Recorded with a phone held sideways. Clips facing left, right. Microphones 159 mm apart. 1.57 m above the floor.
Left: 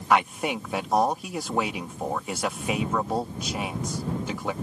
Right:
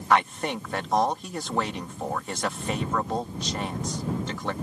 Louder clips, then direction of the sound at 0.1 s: Left 1 dB; 10° left (ahead or behind).